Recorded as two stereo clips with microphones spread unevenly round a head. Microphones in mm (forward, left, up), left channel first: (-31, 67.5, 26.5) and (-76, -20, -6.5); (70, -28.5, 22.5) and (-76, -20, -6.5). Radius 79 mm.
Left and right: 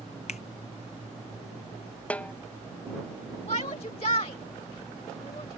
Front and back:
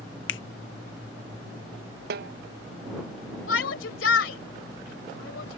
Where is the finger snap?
10° left.